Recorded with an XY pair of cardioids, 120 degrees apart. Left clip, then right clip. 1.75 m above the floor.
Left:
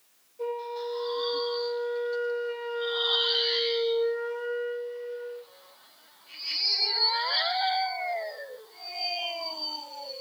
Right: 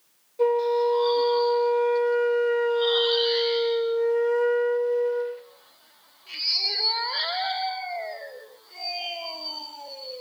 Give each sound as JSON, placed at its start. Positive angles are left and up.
{"t": 0.4, "sound": "a flute", "azimuth_deg": -70, "distance_m": 3.5}